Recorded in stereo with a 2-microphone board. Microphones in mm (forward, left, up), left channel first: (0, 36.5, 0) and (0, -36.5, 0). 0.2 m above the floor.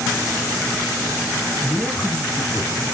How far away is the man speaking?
About 3 m.